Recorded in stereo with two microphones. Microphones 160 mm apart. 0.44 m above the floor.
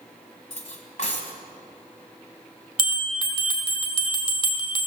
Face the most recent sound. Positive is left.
turn(degrees=35)  # may be behind; listen again after turning